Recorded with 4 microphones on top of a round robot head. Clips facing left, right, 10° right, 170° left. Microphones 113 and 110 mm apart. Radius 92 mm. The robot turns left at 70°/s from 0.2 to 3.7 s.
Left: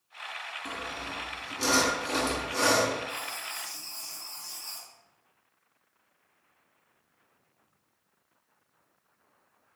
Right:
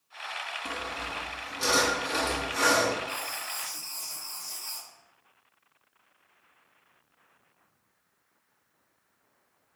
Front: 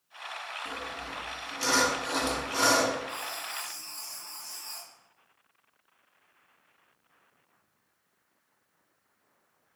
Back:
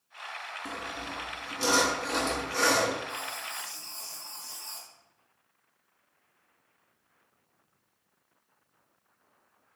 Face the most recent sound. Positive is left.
turn(degrees=-125)